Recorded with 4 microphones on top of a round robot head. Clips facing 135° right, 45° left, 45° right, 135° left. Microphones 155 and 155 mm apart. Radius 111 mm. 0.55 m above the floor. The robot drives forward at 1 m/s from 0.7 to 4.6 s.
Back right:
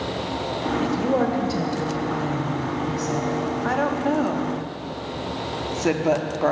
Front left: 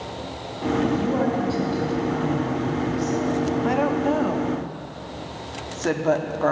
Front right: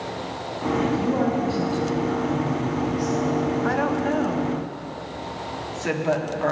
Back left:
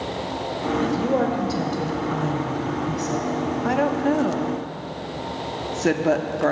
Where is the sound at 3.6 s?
90° left, 1.3 m; by 6.5 s 150° left, 1.6 m.